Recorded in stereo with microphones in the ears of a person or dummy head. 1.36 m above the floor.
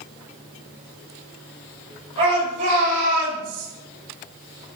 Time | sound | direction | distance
2.2 | a shout | 35° right (ahead or behind) | 6.5 m